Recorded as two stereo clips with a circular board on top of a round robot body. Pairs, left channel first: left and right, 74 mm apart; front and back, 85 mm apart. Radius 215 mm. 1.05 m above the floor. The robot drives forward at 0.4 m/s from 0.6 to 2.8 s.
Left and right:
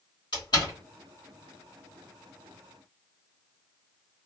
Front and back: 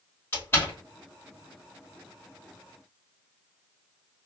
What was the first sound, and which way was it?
A door slam, 65° left.